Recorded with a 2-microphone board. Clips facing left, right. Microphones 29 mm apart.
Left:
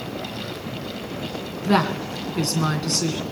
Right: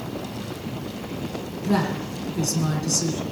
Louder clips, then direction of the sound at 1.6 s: Left 3 dB; 55° left (ahead or behind).